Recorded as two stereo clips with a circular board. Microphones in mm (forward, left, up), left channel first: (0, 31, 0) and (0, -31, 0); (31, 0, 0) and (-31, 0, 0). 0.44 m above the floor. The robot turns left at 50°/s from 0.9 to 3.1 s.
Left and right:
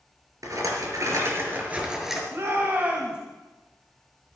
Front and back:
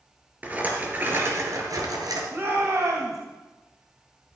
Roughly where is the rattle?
Behind right.